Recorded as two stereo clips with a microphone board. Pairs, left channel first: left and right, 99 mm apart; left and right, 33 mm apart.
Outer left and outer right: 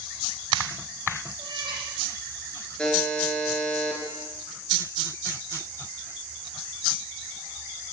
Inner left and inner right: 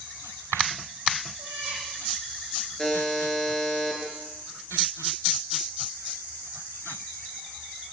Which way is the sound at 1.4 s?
50° right (ahead or behind).